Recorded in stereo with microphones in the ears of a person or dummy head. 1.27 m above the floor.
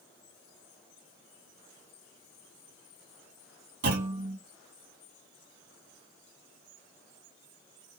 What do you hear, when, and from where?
3.8 s a clunk: 55° right (ahead or behind), 2.5 m